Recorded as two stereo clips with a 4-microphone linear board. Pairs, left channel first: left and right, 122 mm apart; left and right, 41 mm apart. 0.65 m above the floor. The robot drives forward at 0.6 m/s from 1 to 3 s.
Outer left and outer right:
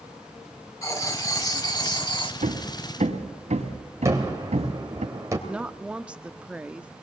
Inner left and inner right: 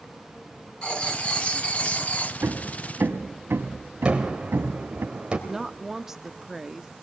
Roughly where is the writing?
Left.